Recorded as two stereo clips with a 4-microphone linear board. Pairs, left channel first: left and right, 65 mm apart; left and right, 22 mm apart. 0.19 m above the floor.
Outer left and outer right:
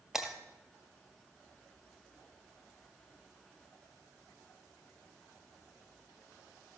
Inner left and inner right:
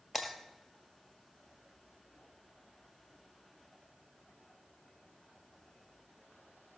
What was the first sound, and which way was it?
Breaking glass, 5° right (ahead or behind).